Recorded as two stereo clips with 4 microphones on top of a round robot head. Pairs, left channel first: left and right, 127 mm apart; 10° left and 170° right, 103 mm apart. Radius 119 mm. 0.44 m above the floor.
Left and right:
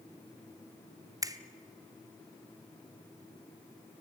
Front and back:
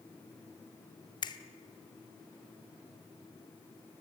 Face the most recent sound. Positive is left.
turn(degrees=-30)